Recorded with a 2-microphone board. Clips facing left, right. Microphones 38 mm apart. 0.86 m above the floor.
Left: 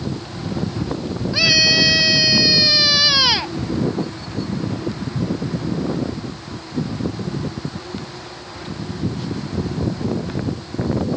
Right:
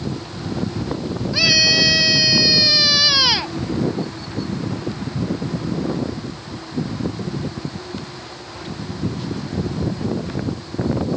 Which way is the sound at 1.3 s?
5° left (ahead or behind).